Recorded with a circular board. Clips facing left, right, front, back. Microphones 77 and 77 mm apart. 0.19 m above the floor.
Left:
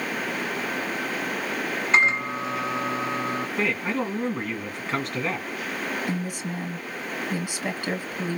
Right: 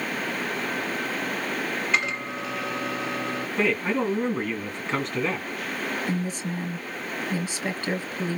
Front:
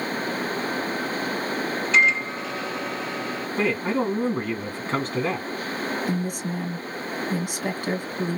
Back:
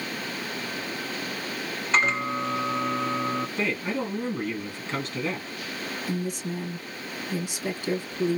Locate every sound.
1.9 s a microwave: 140° left, 1.3 m
3.6 s a man speaking: 5° left, 2 m
6.1 s a woman speaking: 15° left, 2.5 m